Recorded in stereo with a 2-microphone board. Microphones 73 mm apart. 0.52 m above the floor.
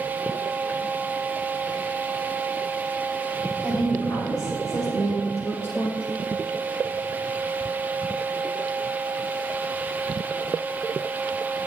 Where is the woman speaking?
55° left (ahead or behind), 2.5 m; by 6.0 s 25° left (ahead or behind), 1.1 m.